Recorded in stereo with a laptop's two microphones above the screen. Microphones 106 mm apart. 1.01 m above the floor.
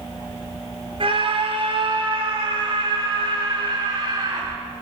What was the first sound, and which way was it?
A scream, 60° right (ahead or behind).